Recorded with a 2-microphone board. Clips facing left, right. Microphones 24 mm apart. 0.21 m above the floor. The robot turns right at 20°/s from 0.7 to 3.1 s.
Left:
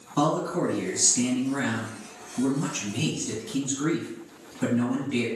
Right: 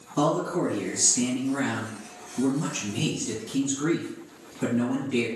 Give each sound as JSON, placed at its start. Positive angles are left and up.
{"t": 0.2, "sound": "a man speaking", "side_deg": 25, "distance_m": 1.4}